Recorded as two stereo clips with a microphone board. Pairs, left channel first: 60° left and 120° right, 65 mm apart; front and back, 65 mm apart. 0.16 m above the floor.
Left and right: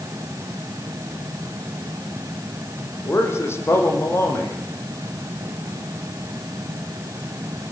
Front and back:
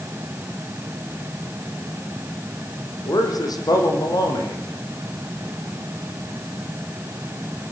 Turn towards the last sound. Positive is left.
turn(degrees=10)